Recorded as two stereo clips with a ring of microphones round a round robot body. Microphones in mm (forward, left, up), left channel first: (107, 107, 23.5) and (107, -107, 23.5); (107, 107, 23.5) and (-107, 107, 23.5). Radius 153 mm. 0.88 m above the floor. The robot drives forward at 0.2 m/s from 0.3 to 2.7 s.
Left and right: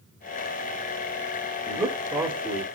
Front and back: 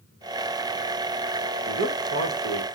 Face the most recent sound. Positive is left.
turn(degrees=-170)